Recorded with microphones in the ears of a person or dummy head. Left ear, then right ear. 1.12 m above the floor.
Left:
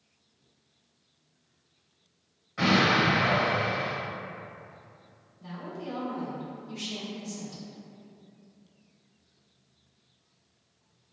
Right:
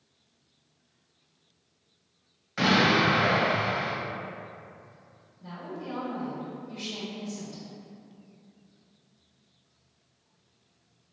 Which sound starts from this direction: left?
A woman speaking, at 5.4 s.